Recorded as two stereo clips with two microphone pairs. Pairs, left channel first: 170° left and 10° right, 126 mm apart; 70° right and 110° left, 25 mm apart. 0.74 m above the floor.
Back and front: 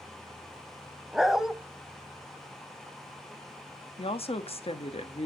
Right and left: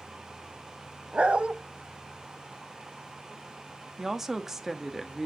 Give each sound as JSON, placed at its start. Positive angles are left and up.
{"t": 1.1, "sound": "a dog barking", "azimuth_deg": 80, "distance_m": 0.9}
{"t": 4.0, "sound": "a woman speaking", "azimuth_deg": 180, "distance_m": 1.5}